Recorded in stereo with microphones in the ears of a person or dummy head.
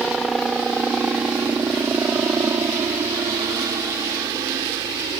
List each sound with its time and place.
0.0 s a helicopter: centre (ahead or behind); by 5.2 s 15° right (ahead or behind)